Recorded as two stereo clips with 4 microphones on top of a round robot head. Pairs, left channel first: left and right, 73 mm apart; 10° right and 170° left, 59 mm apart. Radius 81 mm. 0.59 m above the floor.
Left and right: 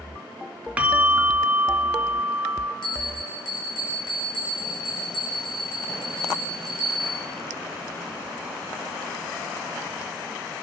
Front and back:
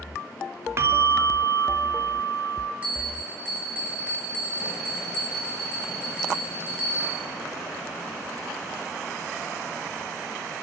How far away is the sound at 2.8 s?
About 9 m.